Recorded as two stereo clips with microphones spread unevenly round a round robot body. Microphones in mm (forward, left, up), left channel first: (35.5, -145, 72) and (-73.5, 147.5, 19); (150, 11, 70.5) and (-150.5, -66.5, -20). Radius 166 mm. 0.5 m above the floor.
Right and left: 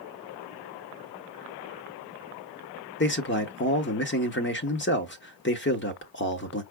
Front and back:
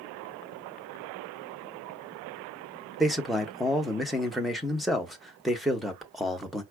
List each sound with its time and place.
3.0 s a man speaking: 105° right, 1.1 m